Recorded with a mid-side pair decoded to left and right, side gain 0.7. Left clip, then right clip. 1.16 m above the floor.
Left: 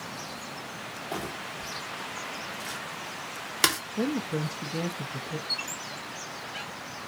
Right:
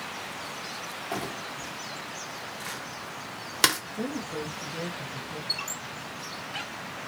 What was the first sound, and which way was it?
Crumpling, 5° right.